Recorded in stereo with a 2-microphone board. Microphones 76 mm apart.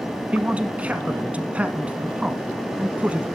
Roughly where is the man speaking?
Centre.